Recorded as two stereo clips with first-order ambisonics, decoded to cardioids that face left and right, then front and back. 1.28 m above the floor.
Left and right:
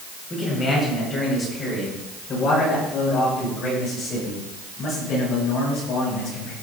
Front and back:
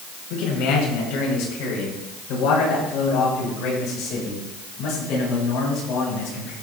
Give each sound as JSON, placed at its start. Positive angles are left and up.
{"t": 0.3, "sound": "a man speaking", "azimuth_deg": 20, "distance_m": 6.0}